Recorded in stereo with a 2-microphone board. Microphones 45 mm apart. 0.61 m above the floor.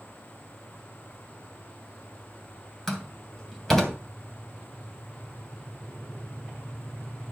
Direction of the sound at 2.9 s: 5° left (ahead or behind).